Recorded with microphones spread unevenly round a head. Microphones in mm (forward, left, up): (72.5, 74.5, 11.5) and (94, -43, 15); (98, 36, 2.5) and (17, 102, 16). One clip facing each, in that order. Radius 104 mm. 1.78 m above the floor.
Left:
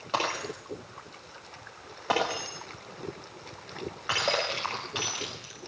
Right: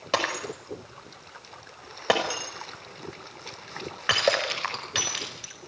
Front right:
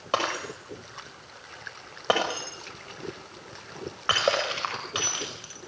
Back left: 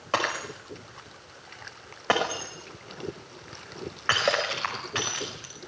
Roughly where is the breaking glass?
Behind right.